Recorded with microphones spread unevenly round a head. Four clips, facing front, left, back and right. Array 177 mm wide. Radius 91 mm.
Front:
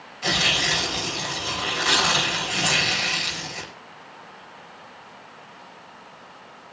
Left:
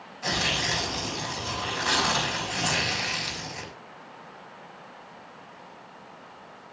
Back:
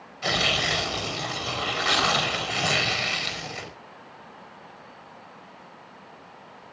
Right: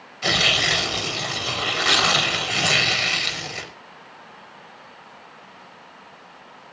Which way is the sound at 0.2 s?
85° right.